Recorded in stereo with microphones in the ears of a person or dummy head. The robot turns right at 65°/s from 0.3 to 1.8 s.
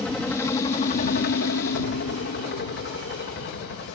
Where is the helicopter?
5° left; by 4.0 s 105° left.